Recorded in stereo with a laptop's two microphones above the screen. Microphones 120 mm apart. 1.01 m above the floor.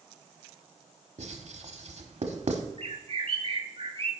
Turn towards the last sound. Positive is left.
turn(degrees=-50)  # may be behind; listen again after turning